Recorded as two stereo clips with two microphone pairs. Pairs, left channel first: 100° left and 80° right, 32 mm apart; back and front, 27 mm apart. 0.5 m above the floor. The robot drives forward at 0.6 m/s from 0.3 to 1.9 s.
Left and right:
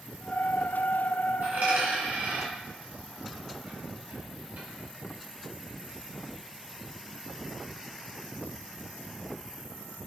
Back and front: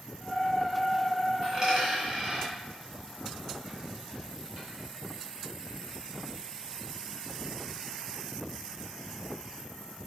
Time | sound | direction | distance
1.4 | a dropped coin | 65° right | 1.9 m